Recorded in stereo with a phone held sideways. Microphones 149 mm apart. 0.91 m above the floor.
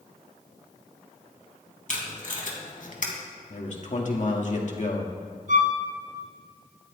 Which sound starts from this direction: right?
A violin, at 5.5 s.